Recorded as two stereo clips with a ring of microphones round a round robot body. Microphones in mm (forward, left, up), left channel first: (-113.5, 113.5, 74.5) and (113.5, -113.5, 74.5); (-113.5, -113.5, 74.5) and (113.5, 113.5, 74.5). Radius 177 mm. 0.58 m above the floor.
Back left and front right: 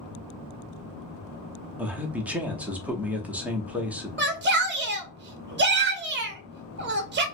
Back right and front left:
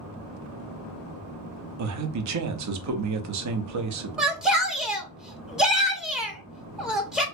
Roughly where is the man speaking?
Ahead left.